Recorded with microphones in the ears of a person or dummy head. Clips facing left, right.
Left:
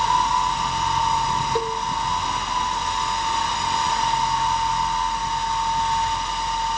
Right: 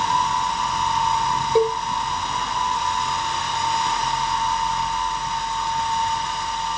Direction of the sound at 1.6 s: 10° right (ahead or behind).